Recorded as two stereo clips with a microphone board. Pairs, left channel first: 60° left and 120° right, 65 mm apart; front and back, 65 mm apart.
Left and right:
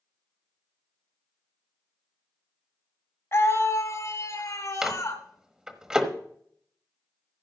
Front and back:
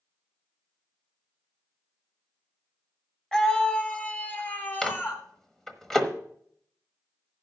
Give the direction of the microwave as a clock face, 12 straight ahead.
2 o'clock.